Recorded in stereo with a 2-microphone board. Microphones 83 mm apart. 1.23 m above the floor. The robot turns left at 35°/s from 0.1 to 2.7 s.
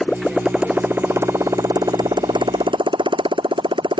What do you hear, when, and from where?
0.0 s a motorcycle: 5° left; by 4.0 s 85° right